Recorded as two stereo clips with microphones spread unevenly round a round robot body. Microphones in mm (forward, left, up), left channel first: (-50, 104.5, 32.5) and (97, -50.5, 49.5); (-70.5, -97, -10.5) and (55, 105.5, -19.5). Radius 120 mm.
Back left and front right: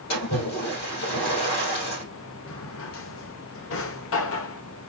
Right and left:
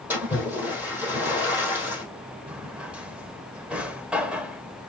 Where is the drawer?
145° left, 0.7 m.